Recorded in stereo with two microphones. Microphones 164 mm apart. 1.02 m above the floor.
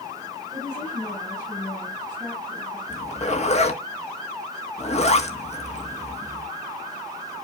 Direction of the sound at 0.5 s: 15° left (ahead or behind).